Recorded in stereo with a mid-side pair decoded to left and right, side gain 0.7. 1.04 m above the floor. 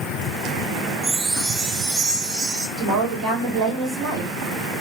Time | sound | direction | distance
1.0 | a chime | 35° right | 1.0 m
2.8 | a woman speaking | 55° right | 1.4 m